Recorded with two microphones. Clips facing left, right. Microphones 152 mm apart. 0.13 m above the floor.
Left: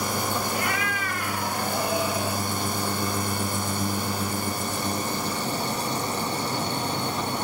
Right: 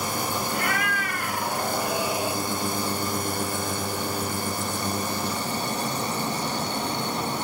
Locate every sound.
0.5 s a cat meowing: 50° right (ahead or behind), 1.4 m; by 2.4 s 5° right (ahead or behind), 0.8 m